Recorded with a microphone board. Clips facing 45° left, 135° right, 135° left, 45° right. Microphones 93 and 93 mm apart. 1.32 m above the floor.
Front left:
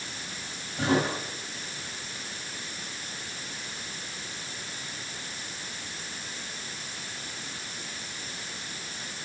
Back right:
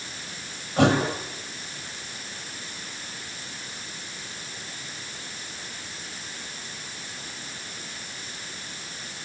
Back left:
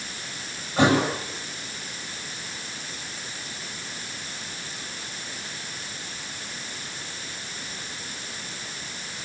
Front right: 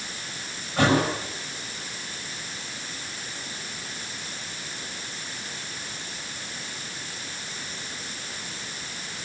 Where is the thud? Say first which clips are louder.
Back right 5 dB, back left 1 dB; 155° right, 7 m.